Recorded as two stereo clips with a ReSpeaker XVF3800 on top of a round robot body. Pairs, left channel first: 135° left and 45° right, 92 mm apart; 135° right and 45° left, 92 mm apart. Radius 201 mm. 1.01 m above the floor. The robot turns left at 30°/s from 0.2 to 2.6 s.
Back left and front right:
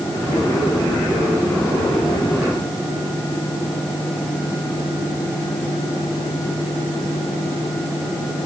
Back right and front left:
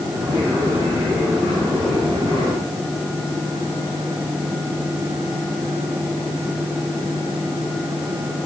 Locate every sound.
Only background noise.